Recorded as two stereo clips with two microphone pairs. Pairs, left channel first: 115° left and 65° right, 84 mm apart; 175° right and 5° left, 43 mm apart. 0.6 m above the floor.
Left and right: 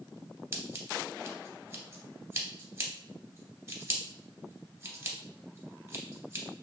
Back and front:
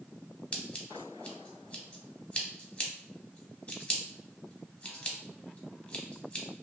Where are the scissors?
115° right, 0.6 m.